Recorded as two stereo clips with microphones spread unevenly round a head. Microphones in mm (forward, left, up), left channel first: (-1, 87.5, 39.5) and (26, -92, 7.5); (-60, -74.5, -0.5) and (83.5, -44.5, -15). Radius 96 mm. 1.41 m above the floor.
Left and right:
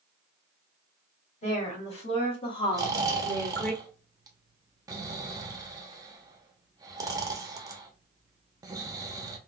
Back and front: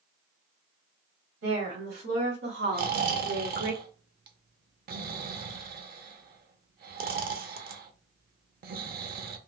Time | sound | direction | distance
1.4 | a woman speaking | 45° left | 2 m
2.7 | snoring | 5° right | 0.7 m